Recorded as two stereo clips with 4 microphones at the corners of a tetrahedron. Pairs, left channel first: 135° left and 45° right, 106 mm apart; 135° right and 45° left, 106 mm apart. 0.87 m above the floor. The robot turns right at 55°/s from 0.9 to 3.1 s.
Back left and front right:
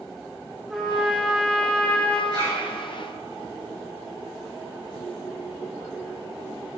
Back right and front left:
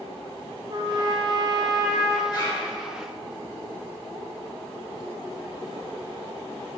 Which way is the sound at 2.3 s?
90° right.